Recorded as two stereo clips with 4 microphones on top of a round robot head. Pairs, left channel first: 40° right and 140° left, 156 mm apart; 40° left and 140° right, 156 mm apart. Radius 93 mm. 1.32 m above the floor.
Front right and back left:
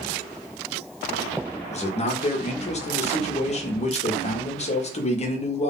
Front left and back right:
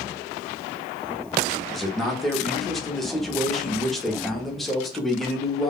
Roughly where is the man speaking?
Ahead right.